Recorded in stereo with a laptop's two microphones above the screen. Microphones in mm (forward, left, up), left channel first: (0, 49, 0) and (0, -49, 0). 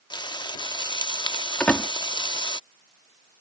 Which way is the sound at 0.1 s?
50° left (ahead or behind).